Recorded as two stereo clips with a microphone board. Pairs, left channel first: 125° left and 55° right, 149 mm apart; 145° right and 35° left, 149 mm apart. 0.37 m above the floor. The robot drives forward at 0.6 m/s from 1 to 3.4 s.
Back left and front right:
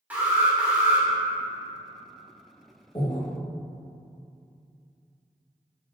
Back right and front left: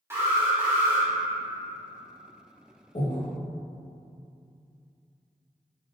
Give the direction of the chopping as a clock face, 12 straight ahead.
No chopping in this recording.